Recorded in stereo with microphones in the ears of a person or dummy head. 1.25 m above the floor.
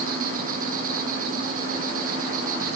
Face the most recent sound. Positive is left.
turn(degrees=-55)  # may be behind; listen again after turning